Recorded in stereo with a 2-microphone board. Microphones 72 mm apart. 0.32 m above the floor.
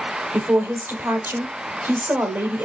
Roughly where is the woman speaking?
Right.